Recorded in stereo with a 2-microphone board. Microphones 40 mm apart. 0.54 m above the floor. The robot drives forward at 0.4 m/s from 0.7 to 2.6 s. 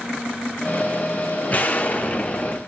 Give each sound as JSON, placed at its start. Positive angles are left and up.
{"t": 1.5, "sound": "an explosion", "side_deg": 45, "distance_m": 0.7}